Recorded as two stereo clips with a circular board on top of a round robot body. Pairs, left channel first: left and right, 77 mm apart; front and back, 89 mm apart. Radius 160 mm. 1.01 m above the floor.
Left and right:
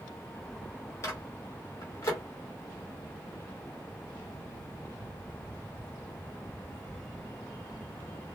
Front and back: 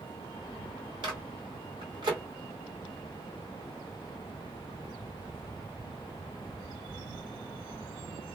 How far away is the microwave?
About 1.8 m.